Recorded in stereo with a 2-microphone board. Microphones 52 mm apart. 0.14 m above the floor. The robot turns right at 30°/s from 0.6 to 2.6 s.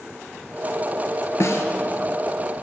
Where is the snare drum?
65° left (ahead or behind), 0.8 m.